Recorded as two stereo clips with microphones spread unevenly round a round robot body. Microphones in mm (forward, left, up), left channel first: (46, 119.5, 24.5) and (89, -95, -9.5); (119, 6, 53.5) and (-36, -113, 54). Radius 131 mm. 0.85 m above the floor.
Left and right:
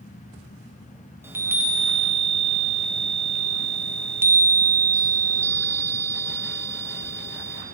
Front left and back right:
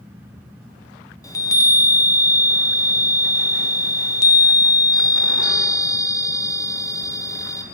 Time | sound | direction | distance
1.2 | a chime | 20° right | 0.7 m